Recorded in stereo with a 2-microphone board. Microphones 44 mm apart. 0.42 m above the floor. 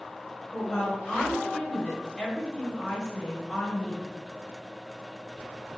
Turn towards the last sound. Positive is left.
turn(degrees=20)  # may be behind; listen again after turning